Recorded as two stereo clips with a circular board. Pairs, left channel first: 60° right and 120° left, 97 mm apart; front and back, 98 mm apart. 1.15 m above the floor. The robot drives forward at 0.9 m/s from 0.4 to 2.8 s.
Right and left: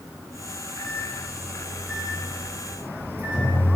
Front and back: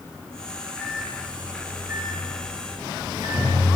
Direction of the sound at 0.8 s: 165° right.